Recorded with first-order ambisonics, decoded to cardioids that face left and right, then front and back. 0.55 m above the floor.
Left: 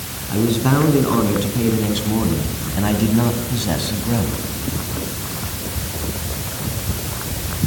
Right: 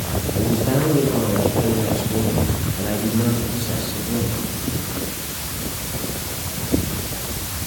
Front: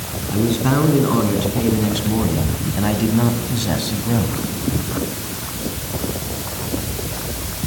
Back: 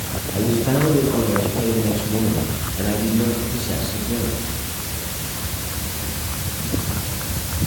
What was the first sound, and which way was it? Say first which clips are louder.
A man speaking: left 3 dB, front 1 dB; 50° left.